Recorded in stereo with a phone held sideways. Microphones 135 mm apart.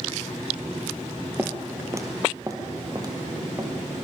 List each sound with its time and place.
1.4 s footsteps: 15° right (ahead or behind), 1.6 m; by 3.7 s 30° right (ahead or behind), 2.5 m